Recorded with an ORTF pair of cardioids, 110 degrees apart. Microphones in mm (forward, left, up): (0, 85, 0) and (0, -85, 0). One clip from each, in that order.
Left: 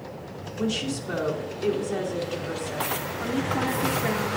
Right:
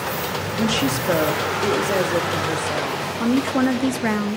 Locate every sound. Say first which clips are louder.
0.6 s a woman speaking: right 6 dB; 65° right, 1.5 m
3.2 s a woman speaking: right 7 dB; 40° right, 0.6 m